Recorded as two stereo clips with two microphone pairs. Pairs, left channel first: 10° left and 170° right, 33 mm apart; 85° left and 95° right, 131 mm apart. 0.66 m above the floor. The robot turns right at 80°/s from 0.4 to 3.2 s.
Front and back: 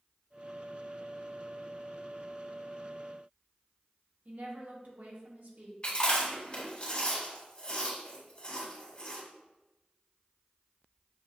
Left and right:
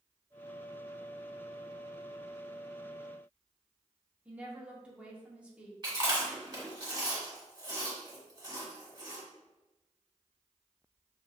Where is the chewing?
40° right, 1.8 m.